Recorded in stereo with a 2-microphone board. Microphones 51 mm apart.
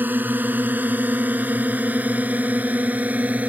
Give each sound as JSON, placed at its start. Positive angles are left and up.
{"t": 0.0, "sound": "a drone", "side_deg": -45}